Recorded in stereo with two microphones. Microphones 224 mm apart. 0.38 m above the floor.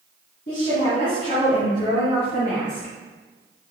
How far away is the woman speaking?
About 2.5 m.